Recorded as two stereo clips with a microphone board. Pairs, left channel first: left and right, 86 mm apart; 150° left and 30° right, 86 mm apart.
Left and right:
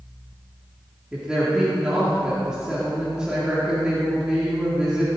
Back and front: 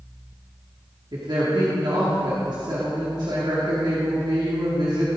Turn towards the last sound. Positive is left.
turn(degrees=-10)